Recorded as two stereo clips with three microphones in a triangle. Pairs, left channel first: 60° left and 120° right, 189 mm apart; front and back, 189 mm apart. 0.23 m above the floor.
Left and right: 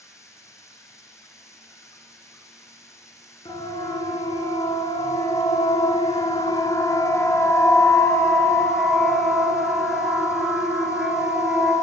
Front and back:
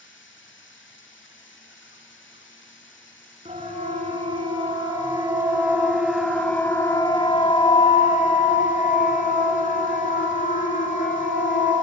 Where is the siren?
125° left, 4 m; by 11.7 s 35° right, 5.5 m.